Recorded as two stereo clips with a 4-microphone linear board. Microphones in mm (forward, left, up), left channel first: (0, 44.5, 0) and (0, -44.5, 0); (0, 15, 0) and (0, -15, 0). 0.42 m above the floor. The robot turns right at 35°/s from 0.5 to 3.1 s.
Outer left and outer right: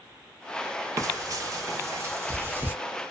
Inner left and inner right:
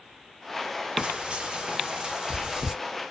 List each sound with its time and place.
1.0 s frying: 35° right (ahead or behind), 0.7 m; by 2.8 s 25° right (ahead or behind), 0.7 m